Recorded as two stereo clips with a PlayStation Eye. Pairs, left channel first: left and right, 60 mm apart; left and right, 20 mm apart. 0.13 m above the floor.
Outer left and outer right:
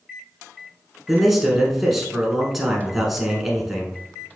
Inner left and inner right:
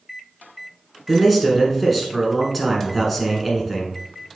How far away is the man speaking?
About 1.1 m.